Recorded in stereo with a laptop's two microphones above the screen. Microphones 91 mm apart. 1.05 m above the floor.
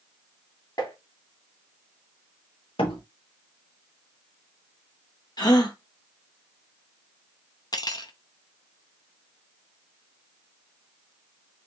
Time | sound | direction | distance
0.8 | tapping | 45° left (ahead or behind) | 1.7 m
2.8 | a door slam | 85° left | 1.6 m
5.4 | a gasp | 50° left (ahead or behind) | 1.3 m
7.7 | cutlery clinking | 45° left (ahead or behind) | 0.7 m